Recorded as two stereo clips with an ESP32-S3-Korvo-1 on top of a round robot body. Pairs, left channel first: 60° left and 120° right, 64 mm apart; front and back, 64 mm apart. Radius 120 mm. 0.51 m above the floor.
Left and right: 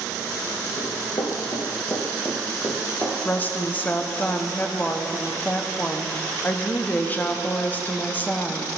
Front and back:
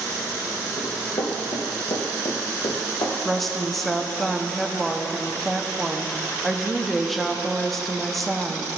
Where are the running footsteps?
20° left, 1.8 m; by 3.1 s 25° right, 1.4 m.